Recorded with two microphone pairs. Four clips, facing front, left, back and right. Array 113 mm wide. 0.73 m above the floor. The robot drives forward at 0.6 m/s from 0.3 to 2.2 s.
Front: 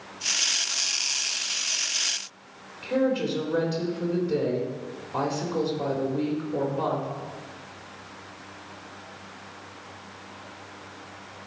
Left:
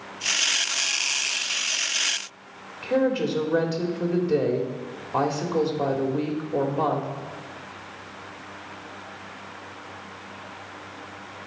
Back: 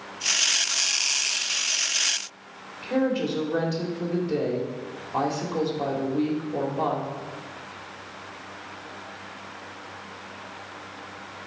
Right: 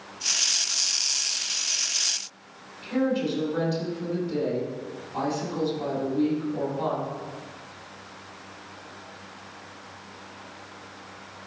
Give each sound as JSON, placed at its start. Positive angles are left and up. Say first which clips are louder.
{"t": 2.8, "sound": "a woman speaking", "louder": "left 3 dB, even", "azimuth_deg": 105, "distance_m": 2.0}